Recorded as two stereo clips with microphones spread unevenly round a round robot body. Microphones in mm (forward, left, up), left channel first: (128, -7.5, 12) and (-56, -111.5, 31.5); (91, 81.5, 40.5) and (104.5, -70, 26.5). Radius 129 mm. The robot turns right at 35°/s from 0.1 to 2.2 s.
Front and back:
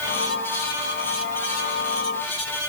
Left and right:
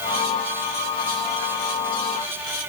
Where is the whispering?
I don't hear whispering.